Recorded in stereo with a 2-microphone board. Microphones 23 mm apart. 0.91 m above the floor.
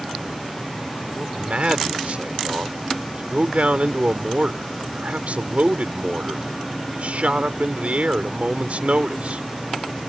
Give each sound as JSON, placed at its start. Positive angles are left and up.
{"t": 1.2, "sound": "a man speaking", "side_deg": -70}